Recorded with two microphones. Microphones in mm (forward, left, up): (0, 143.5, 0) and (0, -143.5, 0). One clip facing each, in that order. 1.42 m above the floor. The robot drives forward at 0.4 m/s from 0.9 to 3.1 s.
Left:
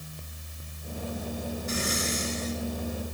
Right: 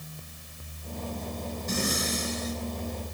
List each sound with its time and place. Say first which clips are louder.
1.7 s breathing: right 3 dB; 50° right (ahead or behind), 8 m; by 2.6 s 45° right (ahead or behind), 8.5 m